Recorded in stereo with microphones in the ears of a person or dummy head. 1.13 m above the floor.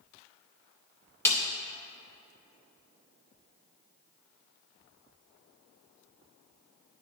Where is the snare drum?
15° left (ahead or behind), 0.7 m.